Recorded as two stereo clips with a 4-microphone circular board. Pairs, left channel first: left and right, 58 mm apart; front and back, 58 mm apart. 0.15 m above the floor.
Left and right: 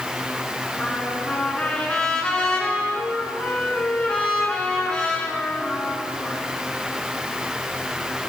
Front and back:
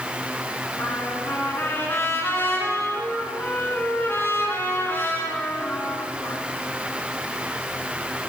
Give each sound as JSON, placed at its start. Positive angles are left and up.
{"t": 0.8, "sound": "a trumpet", "azimuth_deg": 20, "distance_m": 1.7}